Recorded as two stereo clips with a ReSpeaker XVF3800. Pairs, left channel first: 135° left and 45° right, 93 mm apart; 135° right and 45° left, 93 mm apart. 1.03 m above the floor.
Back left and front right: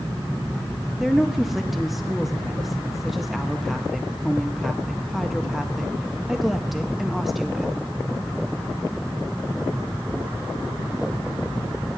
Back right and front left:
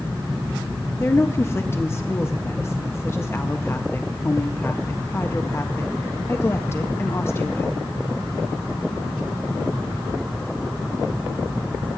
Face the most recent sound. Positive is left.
turn(degrees=-130)